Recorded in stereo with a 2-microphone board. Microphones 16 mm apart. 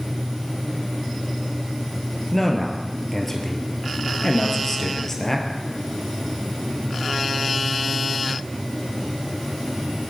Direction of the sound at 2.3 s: 15° left (ahead or behind).